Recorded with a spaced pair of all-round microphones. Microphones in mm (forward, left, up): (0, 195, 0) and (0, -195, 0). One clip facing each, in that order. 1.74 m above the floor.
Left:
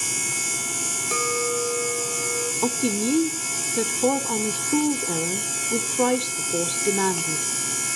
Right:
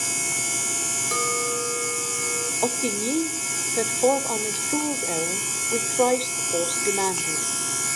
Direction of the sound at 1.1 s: 45° left (ahead or behind).